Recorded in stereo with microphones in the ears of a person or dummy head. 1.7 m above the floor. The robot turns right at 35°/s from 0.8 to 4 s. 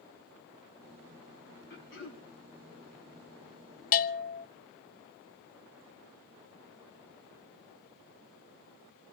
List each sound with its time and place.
1.7 s throat clearing: 55° left (ahead or behind), 4 m; by 2.2 s 65° left (ahead or behind), 4 m
3.9 s a bell: 45° left (ahead or behind), 1.0 m